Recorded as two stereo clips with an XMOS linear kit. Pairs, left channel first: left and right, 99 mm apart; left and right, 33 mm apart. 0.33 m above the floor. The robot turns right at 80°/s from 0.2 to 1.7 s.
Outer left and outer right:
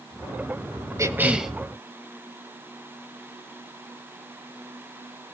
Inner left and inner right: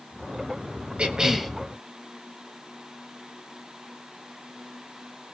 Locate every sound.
1.0 s a cough: 40° right, 2.0 m; by 1.5 s straight ahead, 2.0 m